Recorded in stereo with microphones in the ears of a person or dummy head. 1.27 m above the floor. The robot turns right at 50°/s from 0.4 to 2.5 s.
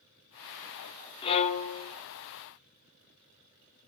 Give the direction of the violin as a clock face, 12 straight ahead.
11 o'clock.